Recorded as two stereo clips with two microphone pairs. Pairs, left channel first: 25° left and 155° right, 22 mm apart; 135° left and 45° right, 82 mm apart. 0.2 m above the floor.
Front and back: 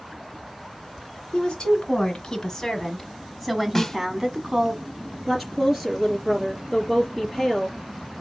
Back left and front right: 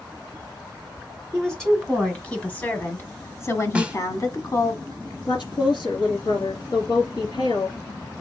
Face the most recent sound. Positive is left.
turn(degrees=125)